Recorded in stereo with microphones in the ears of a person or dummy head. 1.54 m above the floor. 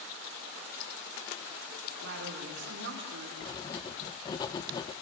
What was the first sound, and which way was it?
A woman speaking, 70° right (ahead or behind).